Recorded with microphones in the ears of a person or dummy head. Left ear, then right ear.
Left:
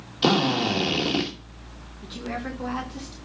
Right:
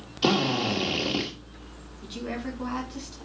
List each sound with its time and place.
0.2 s a drill: 10° left (ahead or behind), 2 m
2.0 s a woman speaking: 5° right (ahead or behind), 2 m